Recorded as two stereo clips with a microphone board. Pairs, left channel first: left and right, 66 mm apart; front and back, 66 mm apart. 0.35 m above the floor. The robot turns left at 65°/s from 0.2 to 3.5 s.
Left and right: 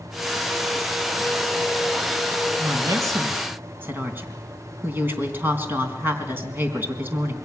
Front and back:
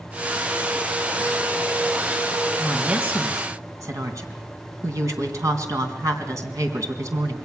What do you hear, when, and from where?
2.6 s a woman speaking: 90° right, 3.5 m; by 7.3 s 145° right, 3.5 m